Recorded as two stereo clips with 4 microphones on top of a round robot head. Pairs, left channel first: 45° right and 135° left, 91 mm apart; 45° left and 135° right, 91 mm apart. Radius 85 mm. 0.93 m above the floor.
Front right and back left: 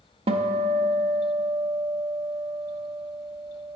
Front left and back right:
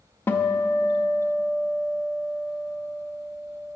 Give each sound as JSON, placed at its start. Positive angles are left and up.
{"t": 0.3, "sound": "a guitar", "azimuth_deg": 110, "distance_m": 0.5}